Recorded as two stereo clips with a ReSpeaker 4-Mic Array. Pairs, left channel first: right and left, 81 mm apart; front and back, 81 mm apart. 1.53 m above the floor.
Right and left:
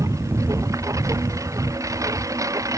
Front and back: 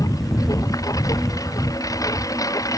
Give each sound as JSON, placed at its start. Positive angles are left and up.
{"t": 0.0, "sound": "a lawn mower", "azimuth_deg": 40}